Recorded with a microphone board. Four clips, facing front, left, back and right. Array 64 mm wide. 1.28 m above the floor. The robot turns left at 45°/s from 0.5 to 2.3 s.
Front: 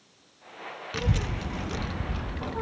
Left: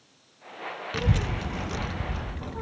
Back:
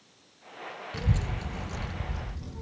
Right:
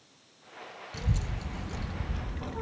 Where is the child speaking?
65° left, 0.5 m; by 2.6 s 5° left, 0.5 m.